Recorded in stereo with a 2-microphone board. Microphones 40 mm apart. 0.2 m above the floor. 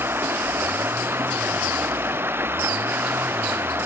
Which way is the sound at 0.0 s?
75° right (ahead or behind).